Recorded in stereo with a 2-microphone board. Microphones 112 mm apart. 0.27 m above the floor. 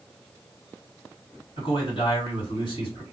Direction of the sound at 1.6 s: 55° left (ahead or behind).